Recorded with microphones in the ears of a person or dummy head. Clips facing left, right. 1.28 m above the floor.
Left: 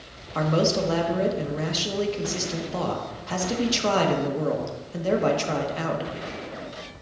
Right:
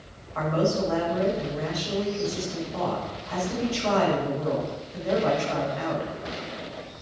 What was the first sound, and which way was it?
A man speaking, 60° left (ahead or behind).